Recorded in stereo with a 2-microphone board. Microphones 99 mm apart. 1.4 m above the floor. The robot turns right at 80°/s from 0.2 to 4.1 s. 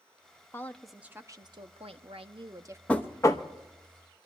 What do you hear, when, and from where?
0.5 s a woman speaking: 150° left, 0.9 m; by 2.8 s 25° right, 0.9 m
2.9 s knocking: 15° left, 0.9 m; by 3.5 s 60° left, 0.9 m